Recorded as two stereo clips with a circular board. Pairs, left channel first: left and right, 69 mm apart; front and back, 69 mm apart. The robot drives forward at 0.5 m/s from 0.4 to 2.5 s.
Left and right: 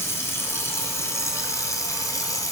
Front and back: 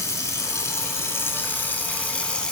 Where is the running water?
40° left, 1.9 m; by 2.5 s 75° left, 1.3 m.